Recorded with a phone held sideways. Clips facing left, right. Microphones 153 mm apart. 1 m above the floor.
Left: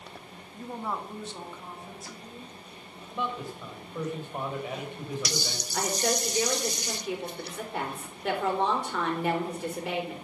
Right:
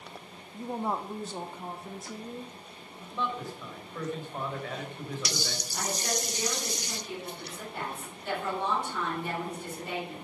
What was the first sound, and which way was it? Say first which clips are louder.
A woman speaking: right 3 dB; 10° right (ahead or behind).